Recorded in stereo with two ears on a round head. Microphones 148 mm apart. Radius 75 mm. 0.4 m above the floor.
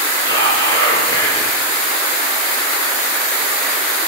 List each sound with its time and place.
0.2 s whispering: 20° left (ahead or behind), 7.5 m